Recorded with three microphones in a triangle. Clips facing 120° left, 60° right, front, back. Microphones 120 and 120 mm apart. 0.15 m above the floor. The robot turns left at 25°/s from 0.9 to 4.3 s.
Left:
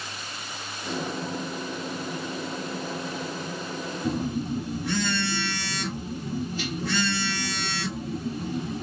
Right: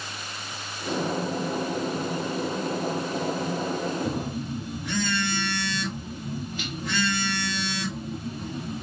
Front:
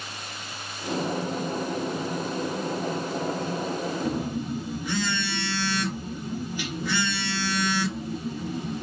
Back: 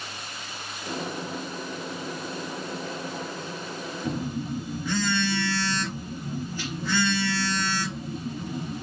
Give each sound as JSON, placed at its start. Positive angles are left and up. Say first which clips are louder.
{"t": 4.0, "sound": "a phone buzzing", "louder": "left 2 dB, front 2 dB", "azimuth_deg": 80, "distance_m": 2.5}